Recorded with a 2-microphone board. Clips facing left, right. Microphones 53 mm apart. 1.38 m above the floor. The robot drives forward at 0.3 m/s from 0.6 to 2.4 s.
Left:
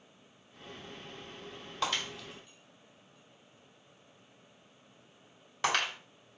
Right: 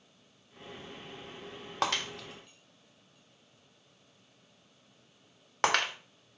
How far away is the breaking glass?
About 1.6 m.